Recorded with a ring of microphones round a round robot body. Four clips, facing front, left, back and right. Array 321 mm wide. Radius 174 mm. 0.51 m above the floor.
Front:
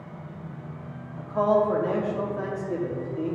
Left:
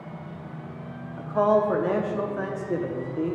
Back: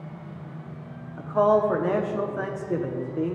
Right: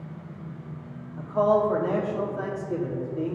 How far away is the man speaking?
About 0.8 m.